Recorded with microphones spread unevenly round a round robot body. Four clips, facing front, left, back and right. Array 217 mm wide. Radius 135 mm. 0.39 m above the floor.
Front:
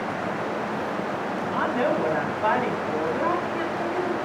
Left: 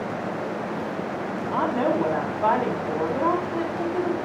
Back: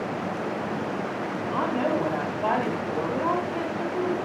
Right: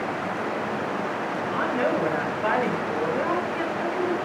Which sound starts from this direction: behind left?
A woman speaking, at 1.5 s.